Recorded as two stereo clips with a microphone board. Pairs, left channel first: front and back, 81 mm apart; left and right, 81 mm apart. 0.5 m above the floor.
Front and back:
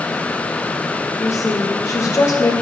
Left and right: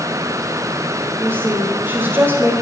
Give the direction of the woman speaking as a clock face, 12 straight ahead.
1 o'clock.